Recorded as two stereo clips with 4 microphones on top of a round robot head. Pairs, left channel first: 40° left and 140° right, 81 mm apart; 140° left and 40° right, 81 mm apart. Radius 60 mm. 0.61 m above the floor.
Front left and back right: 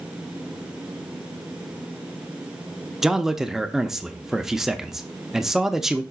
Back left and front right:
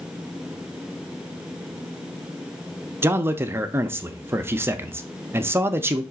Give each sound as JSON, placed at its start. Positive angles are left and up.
{"t": 3.0, "sound": "a man speaking", "azimuth_deg": -60, "distance_m": 0.6}